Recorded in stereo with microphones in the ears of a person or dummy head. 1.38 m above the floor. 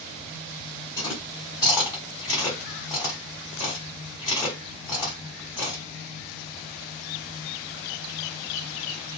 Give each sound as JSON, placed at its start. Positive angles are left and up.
{"t": 1.0, "sound": "chewing", "side_deg": 15, "distance_m": 1.3}